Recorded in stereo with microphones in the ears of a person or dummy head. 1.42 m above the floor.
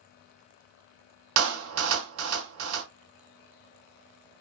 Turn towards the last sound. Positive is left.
turn(degrees=-80)